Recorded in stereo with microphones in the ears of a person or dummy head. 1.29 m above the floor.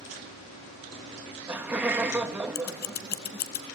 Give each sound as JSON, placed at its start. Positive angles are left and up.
{"t": 1.1, "sound": "laughter", "side_deg": -10, "distance_m": 1.3}
{"t": 2.5, "sound": "scissors", "side_deg": 50, "distance_m": 0.9}